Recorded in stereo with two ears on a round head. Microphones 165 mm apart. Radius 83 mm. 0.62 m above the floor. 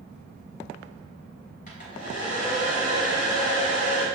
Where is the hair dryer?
45° left (ahead or behind), 1.7 m.